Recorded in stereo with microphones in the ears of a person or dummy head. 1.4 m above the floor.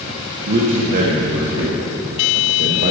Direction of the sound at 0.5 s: 45° right (ahead or behind).